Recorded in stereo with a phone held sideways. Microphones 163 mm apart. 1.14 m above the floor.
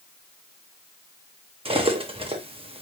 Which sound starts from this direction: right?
Cutlery clinking, at 1.6 s.